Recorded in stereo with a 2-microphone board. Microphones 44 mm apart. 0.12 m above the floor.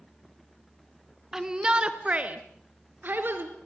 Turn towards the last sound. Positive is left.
turn(degrees=-55)  # may be behind; listen again after turning